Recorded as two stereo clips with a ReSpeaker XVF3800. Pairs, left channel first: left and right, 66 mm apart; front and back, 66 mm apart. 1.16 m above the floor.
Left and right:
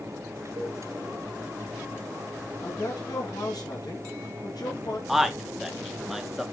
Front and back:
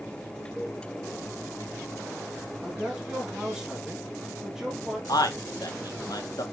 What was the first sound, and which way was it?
A cowbell, 105° right.